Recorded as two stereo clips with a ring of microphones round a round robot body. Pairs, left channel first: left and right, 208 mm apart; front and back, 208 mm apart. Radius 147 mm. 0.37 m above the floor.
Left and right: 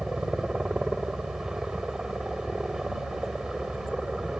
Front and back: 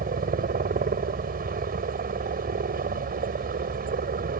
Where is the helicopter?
175° right.